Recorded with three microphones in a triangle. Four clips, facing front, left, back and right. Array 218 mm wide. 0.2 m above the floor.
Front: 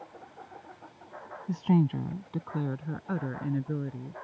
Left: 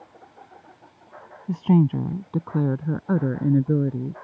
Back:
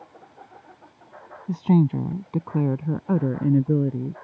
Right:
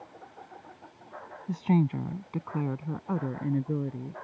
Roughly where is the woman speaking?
Behind left.